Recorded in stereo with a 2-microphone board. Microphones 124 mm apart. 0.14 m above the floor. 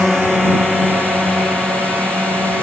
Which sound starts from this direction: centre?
A drone, at 0.0 s.